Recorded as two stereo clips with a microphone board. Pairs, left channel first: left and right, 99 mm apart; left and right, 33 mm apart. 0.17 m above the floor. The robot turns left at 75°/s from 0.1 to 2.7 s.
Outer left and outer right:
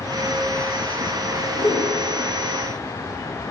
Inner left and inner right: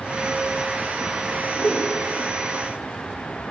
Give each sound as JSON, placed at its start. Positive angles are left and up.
{"t": 1.6, "sound": "a whoosh", "side_deg": 45, "distance_m": 4.0}